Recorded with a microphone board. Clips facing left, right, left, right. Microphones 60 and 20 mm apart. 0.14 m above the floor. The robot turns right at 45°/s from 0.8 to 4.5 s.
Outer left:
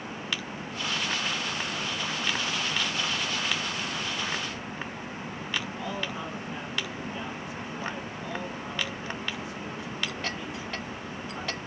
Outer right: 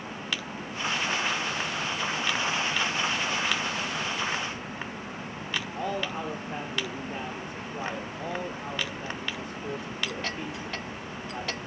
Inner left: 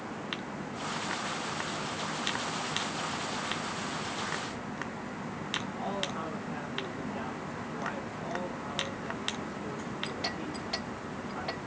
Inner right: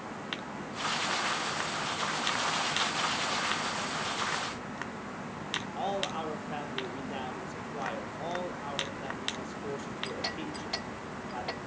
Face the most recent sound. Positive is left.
turn(degrees=-55)  # may be behind; listen again after turning